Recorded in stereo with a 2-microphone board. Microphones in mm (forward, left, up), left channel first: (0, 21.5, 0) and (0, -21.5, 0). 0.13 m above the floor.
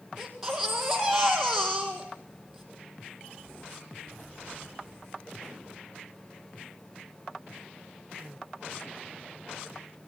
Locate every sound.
0.2 s a baby crying: 10° right (ahead or behind), 4 m